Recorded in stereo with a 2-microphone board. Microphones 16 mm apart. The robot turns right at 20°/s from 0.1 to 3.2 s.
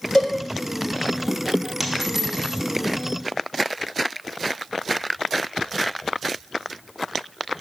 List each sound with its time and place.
0.1 s a cowbell: 70° left (ahead or behind), 1.6 m
1.8 s a dropped coin: 5° right (ahead or behind), 1.2 m; by 2.6 s 5° left (ahead or behind), 1.2 m